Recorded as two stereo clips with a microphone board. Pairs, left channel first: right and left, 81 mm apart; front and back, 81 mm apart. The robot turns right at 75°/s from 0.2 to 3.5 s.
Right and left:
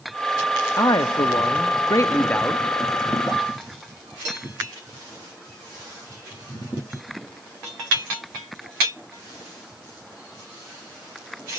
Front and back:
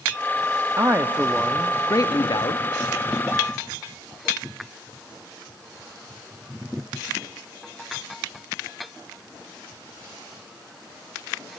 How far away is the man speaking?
About 0.9 m.